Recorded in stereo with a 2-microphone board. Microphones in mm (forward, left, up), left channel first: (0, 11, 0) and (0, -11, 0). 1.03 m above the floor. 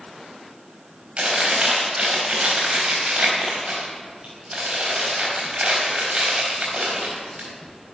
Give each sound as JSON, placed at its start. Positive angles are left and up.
{"t": 1.2, "sound": "chewing", "side_deg": -60, "distance_m": 4.0}